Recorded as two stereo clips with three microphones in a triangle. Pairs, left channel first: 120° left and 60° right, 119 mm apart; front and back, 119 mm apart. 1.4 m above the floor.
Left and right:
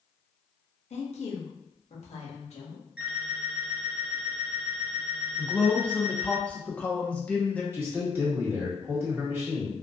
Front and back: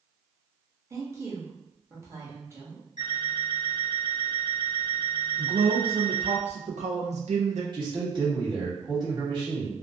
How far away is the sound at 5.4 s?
About 0.7 m.